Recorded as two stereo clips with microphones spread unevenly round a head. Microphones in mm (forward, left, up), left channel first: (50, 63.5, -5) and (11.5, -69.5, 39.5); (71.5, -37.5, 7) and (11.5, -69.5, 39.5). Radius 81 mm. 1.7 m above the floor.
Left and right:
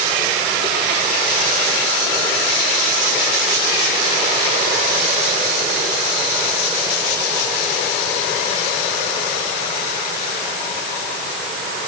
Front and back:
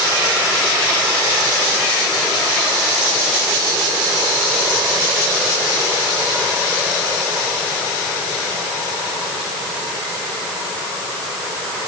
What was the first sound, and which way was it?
Only background noise.